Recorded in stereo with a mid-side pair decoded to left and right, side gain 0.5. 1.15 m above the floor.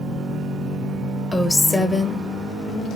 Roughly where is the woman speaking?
Ahead.